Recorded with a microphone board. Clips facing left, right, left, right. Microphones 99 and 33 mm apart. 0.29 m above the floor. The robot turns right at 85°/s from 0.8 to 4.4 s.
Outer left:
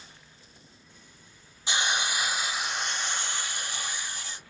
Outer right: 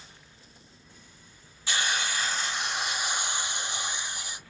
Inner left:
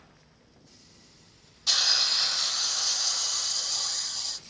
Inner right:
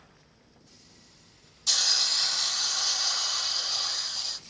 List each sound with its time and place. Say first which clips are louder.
1.7 s a hiss: outer left 1 dB, inner left 1 dB; 20° left (ahead or behind), 0.7 m; by 4.4 s 10° right (ahead or behind), 0.7 m